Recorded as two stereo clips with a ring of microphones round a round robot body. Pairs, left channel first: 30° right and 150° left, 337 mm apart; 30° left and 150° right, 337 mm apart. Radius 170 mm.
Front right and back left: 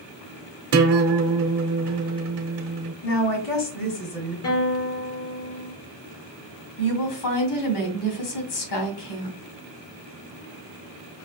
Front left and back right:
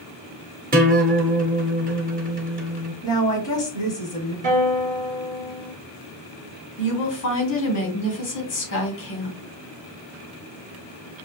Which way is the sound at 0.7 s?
155° left.